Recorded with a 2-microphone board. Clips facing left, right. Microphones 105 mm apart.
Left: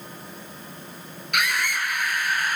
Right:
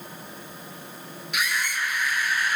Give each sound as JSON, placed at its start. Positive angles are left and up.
{"t": 1.3, "sound": "a scream", "side_deg": 60, "distance_m": 3.0}